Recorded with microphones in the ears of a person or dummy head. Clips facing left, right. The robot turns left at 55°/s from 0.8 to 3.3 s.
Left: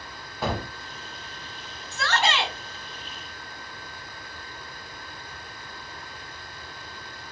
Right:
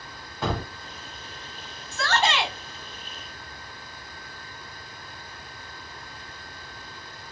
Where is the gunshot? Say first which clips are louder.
Even; 5° left (ahead or behind), 0.8 m.